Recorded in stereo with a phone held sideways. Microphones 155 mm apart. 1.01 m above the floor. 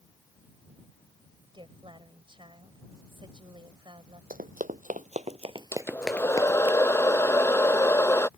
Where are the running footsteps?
65° right (ahead or behind); by 6.7 s 40° left (ahead or behind).